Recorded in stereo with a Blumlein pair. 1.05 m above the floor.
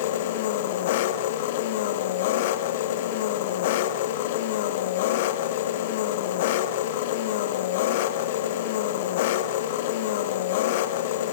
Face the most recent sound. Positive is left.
turn(degrees=50)